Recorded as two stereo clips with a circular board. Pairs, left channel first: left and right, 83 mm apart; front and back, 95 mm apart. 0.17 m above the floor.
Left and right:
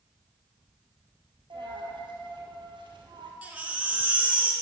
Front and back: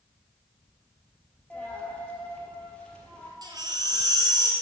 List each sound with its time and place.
1.5 s a dropped coin: 80° right, 1.8 m
3.4 s a baby crying: 155° right, 1.3 m